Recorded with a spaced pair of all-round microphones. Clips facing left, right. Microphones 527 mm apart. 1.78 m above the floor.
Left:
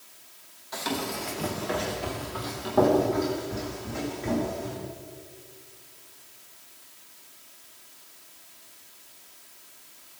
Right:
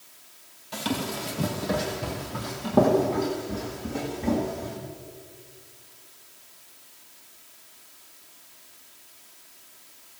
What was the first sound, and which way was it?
Running footsteps, 50° right (ahead or behind).